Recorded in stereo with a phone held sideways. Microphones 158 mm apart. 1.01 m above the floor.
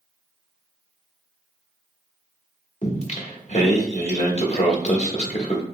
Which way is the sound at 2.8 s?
45° left (ahead or behind).